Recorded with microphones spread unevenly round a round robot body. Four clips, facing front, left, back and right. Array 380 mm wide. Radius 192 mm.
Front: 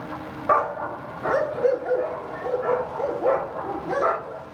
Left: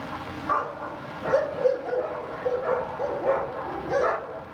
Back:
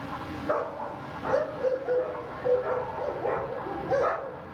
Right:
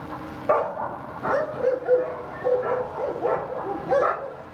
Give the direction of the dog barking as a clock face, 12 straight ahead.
1 o'clock.